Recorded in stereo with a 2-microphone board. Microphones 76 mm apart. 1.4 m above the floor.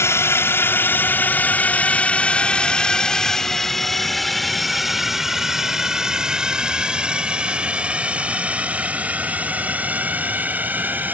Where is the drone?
35° left (ahead or behind); by 11.2 s 25° right (ahead or behind).